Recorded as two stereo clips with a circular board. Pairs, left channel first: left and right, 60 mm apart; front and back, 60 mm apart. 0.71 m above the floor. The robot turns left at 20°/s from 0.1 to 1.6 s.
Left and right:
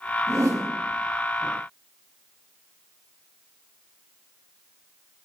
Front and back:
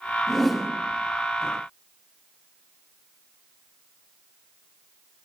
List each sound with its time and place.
0.3 s a whoosh: 85° right, 1.7 m; by 0.7 s 90° right, 1.7 m